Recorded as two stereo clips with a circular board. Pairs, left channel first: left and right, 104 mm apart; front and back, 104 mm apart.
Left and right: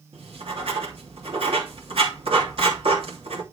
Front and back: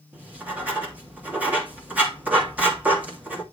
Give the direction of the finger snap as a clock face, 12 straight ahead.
No finger snap in this recording.